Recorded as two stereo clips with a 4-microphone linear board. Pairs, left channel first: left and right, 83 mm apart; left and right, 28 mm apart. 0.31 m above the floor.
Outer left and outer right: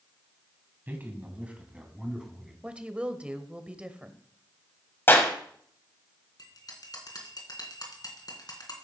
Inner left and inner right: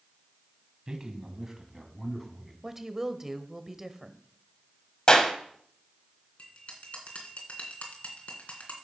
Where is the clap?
30° left (ahead or behind), 1.8 m.